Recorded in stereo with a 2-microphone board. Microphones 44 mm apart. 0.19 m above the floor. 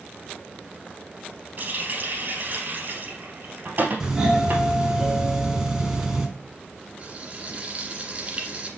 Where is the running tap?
50° right (ahead or behind), 2.5 m.